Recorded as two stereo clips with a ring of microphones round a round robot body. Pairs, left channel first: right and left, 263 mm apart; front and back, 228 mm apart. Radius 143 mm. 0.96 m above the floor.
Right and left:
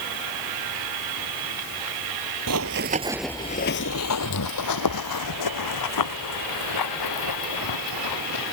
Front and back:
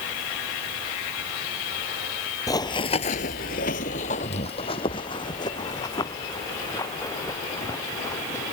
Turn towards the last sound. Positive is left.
turn(degrees=-80)